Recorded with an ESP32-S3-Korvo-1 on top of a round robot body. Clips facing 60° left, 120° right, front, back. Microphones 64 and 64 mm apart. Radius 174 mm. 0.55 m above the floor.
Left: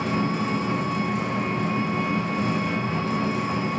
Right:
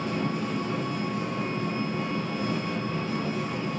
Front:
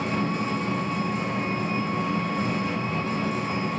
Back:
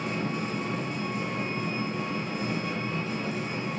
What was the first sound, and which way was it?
An engine running, 40° left.